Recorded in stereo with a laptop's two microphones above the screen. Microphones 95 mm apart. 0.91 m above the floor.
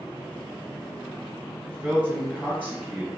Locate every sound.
1.6 s a man speaking: 20° right (ahead or behind), 1.1 m